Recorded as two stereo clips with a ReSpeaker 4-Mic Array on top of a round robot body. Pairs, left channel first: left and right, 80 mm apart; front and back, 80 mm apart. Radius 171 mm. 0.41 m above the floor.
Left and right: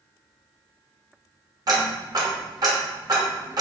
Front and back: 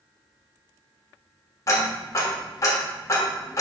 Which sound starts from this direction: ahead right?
Ticking, at 1.7 s.